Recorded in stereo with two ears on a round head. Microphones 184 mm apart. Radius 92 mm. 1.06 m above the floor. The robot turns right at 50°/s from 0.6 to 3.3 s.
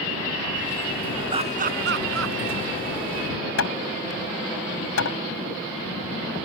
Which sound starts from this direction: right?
Laughter, at 1.3 s.